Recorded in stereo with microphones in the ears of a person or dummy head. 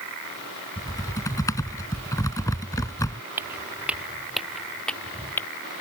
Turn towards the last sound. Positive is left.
turn(degrees=10)  # may be behind; listen again after turning